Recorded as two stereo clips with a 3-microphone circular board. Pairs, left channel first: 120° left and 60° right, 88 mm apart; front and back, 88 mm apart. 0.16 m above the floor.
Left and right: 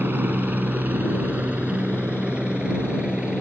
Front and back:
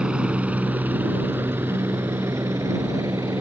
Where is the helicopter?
110° right; by 3.4 s 140° right.